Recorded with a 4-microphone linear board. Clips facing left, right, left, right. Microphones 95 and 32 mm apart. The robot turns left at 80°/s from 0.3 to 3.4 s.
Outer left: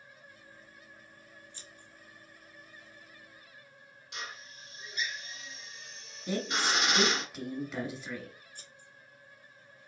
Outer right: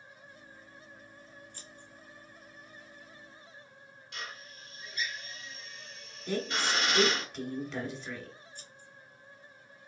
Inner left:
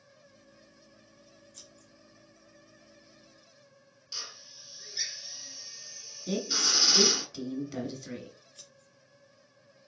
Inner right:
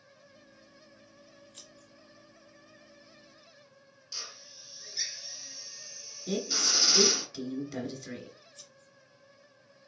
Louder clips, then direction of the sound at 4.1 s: Outer left 1 dB, inner left 1 dB; 20° left (ahead or behind).